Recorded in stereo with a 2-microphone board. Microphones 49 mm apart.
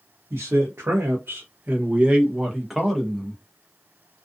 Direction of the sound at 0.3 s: 70° right (ahead or behind).